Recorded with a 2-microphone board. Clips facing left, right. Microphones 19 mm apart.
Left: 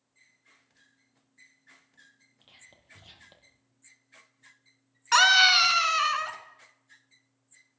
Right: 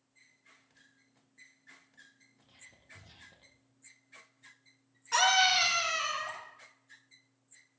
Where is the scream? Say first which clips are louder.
Left 7 dB; 65° left (ahead or behind), 3 m.